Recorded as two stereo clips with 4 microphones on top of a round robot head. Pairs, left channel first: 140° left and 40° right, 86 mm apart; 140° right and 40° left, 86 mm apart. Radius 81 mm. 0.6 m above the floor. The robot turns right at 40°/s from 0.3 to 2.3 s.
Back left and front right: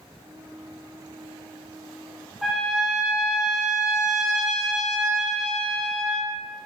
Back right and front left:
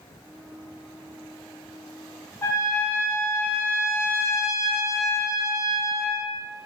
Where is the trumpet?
125° right, 0.7 m.